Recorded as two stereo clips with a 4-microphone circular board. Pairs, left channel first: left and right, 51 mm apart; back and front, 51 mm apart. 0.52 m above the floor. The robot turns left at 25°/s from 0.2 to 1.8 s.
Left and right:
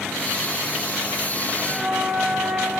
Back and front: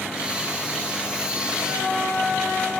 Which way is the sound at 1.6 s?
25° right.